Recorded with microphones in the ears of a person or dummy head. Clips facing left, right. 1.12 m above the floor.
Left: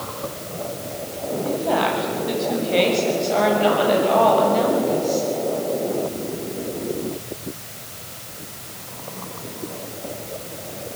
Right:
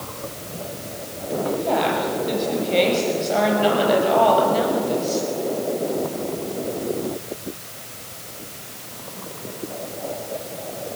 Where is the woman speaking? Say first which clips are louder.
Even; 5° left (ahead or behind), 7.5 m; by 5.3 s 10° right (ahead or behind), 7 m.